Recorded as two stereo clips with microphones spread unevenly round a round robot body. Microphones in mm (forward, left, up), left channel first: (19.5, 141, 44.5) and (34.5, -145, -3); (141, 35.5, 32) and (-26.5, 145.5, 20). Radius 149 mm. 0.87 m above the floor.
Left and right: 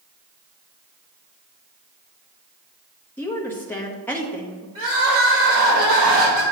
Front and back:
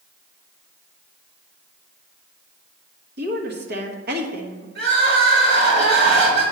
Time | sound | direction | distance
3.2 | a woman speaking | straight behind | 1.2 m
4.8 | crying | 160° right | 4 m